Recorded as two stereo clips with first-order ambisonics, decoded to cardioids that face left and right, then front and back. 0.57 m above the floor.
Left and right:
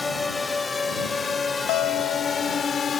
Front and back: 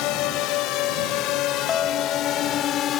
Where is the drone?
15° left; by 3.0 s 35° left.